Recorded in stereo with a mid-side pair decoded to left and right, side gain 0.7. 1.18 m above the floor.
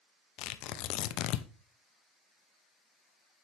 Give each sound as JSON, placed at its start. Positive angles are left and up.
{"t": 0.4, "sound": "tearing paper", "azimuth_deg": 60, "distance_m": 0.7}